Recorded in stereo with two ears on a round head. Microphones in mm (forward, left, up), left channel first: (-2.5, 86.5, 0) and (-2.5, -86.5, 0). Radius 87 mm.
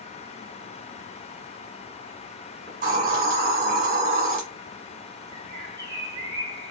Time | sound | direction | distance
2.7 | a hiss | 50° right (ahead or behind) | 1.5 m
5.3 | a bird | 20° right (ahead or behind) | 1.0 m